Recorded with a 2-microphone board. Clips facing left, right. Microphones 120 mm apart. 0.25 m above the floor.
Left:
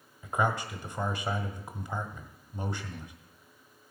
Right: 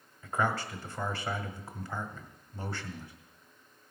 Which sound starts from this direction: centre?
A man speaking, at 0.2 s.